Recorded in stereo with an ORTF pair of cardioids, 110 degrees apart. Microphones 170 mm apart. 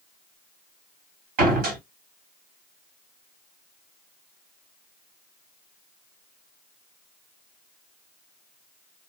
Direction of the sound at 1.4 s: 70° right.